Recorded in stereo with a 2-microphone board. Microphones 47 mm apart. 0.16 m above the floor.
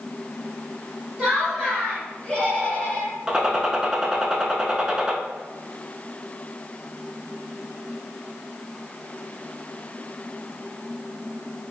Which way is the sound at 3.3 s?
15° right (ahead or behind).